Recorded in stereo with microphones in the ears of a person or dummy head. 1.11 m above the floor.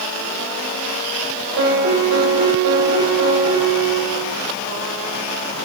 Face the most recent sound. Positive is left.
turn(degrees=-65)  # may be behind; listen again after turning